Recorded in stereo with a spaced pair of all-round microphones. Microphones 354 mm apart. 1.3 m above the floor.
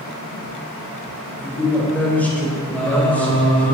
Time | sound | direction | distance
1.4 | a man speaking | 5° left (ahead or behind) | 4.5 m
2.7 | singing | 5° left (ahead or behind) | 4.5 m